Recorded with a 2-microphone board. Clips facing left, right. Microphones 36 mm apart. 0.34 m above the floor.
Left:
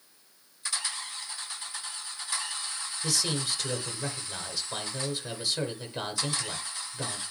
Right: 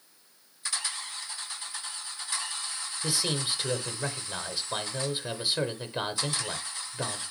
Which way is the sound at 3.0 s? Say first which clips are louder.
Even; 20° right (ahead or behind).